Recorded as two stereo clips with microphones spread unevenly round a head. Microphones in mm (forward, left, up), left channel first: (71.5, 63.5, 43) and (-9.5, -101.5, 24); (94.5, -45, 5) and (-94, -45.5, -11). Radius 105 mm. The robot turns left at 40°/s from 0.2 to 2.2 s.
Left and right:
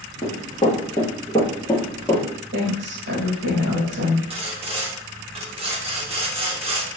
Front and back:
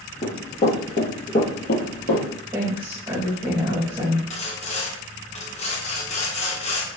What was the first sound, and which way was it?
Running footsteps, 25° left.